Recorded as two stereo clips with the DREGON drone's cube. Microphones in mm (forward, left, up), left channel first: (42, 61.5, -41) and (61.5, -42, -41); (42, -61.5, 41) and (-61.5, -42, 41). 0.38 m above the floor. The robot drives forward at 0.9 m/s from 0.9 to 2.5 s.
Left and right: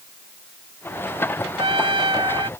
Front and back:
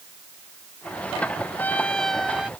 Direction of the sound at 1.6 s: 80° right.